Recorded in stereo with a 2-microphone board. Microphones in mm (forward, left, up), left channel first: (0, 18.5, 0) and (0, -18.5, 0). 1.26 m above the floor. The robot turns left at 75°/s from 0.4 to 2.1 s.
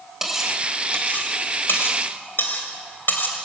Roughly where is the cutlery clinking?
Centre.